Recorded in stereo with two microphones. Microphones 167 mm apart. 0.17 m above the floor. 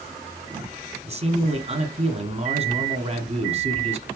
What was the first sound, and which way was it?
A man speaking, 40° right (ahead or behind).